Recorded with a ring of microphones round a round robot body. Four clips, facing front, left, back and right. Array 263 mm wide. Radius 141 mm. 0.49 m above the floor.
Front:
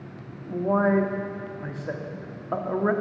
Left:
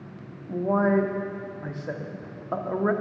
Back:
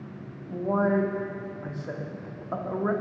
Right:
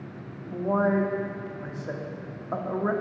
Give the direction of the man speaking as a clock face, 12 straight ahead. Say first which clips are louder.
Left 2 dB, front 3 dB; 11 o'clock.